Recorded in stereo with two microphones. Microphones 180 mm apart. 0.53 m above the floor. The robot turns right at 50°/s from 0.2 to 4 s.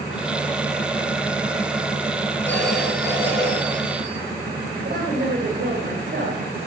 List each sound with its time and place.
2.5 s a phone ringing: 170° left, 3.5 m; by 4.2 s 115° right, 3.5 m
4.8 s a woman speaking: 55° right (ahead or behind), 2.5 m